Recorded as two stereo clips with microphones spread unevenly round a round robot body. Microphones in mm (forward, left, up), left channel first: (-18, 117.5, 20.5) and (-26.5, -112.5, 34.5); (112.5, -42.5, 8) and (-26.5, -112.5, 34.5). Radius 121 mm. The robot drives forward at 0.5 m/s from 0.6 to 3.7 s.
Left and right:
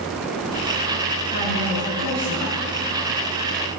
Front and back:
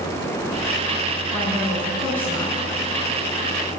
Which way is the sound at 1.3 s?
50° right.